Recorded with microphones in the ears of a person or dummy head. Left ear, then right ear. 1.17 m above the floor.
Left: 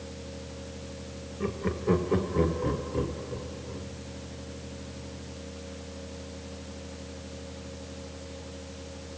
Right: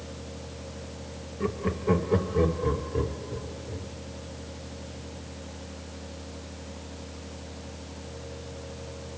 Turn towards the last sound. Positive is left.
turn(degrees=30)  # may be behind; listen again after turning